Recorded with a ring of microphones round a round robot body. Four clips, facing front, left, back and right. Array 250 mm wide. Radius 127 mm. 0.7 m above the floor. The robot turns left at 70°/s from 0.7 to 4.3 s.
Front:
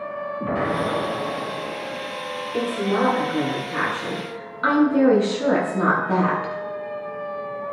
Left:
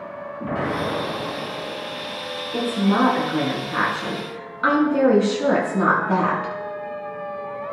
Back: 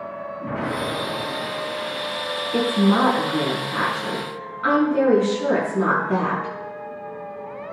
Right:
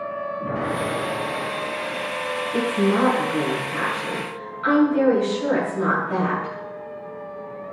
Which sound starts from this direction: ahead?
An explosion, at 0.4 s.